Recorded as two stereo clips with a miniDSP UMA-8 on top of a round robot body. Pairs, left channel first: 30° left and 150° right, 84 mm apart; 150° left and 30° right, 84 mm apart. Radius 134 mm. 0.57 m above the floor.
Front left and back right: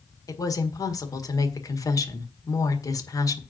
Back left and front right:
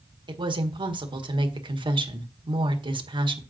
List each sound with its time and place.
0.3 s a woman speaking: 15° right, 1.7 m